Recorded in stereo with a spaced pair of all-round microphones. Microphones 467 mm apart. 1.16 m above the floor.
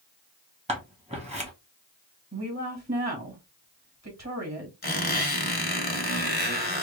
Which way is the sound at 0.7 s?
15° right (ahead or behind).